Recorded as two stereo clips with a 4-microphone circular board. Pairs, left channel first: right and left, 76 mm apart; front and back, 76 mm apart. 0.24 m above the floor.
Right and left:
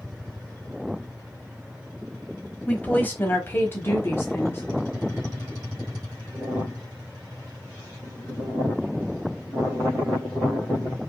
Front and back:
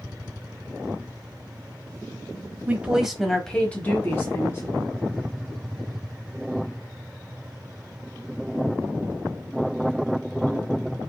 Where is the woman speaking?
135° right, 1.1 m; by 4.6 s 40° right, 1.6 m.